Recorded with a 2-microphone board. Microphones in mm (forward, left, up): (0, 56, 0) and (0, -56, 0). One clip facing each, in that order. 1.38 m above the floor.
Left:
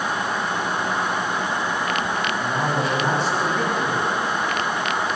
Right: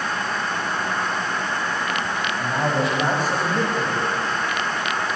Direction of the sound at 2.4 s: 50° right (ahead or behind).